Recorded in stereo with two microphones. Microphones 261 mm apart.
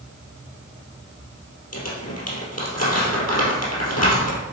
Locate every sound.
1.7 s crumpling: 75° left (ahead or behind), 2.5 m